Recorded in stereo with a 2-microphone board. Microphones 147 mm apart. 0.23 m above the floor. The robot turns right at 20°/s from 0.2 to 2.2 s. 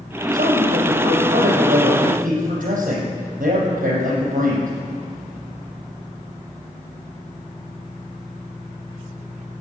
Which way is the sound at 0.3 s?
105° right.